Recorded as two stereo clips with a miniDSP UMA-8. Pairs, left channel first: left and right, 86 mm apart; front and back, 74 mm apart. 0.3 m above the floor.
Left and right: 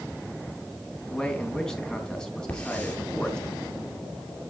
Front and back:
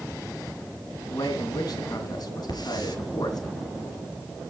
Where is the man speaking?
10° left, 3 m.